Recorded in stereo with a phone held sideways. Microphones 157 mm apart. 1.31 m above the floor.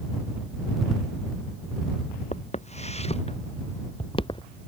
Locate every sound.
2.3 s footsteps: 45° left (ahead or behind); by 4.4 s 30° left (ahead or behind)